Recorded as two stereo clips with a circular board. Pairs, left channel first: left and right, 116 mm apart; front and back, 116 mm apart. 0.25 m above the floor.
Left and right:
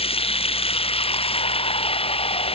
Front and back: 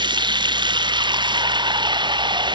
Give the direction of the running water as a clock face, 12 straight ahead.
8 o'clock.